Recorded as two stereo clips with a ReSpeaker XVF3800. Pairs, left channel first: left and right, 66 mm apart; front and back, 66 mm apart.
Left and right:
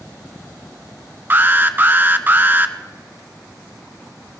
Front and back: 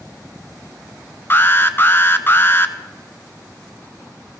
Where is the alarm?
40° right, 0.9 m.